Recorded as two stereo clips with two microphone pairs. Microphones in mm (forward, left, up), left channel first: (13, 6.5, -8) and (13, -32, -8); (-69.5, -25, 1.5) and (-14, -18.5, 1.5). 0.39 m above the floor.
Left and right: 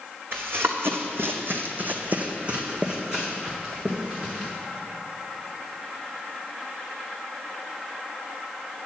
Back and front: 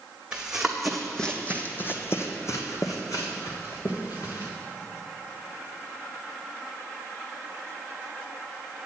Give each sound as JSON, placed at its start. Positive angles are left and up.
{"t": 0.3, "sound": "running footsteps", "azimuth_deg": -70, "distance_m": 1.4}